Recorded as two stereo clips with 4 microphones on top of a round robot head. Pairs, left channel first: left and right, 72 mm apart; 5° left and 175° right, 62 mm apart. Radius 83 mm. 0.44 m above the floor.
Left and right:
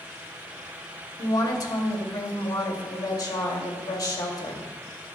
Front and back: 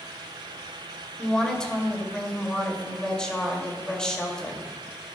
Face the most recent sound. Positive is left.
turn(degrees=80)